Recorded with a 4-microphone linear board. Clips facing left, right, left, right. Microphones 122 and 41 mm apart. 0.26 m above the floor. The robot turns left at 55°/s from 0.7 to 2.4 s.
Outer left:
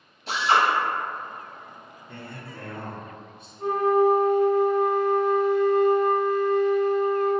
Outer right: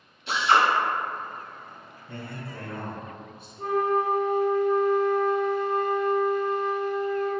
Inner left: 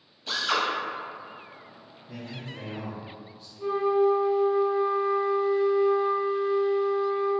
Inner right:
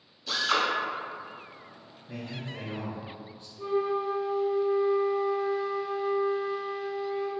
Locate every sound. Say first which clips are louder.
0.3 s a drill: even, even; 40° left (ahead or behind), 1.0 m
2.1 s a man speaking: outer right 3 dB, inner right 1 dB; 30° right (ahead or behind), 1.5 m; by 3.5 s 40° right (ahead or behind), 1.5 m
3.6 s a flute: outer left 4 dB, inner left 5 dB; centre (ahead or behind), 1.7 m